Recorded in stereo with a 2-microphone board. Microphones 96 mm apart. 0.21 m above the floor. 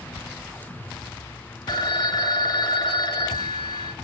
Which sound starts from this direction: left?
A phone ringing, at 1.7 s.